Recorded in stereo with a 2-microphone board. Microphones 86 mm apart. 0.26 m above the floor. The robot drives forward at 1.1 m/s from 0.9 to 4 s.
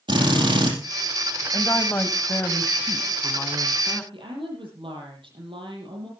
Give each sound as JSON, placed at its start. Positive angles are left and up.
{"t": 0.1, "sound": "a drill", "side_deg": -70, "distance_m": 6.0}
{"t": 1.5, "sound": "a woman speaking", "side_deg": 35, "distance_m": 1.5}
{"t": 4.1, "sound": "a woman speaking", "side_deg": -80, "distance_m": 9.5}